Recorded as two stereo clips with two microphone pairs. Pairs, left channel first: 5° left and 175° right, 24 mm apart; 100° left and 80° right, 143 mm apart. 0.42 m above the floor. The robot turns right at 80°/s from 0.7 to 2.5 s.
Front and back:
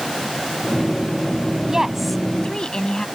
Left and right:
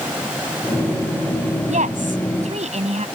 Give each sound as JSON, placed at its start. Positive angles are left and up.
{"t": 1.7, "sound": "a woman speaking", "azimuth_deg": -115}